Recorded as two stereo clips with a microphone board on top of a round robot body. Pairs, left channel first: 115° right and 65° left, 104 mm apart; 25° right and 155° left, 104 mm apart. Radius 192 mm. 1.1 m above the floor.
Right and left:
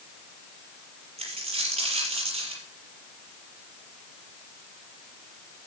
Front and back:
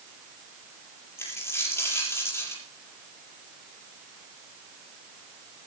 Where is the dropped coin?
45° left, 6.5 m.